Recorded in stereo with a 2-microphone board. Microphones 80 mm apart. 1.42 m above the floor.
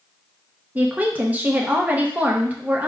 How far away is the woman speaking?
About 0.6 m.